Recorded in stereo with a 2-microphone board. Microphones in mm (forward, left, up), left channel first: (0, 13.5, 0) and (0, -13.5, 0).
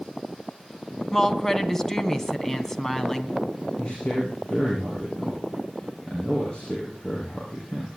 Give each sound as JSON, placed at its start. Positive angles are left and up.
{"t": 1.1, "sound": "a woman speaking", "side_deg": 15, "distance_m": 1.7}
{"t": 3.8, "sound": "a man speaking", "side_deg": 30, "distance_m": 6.0}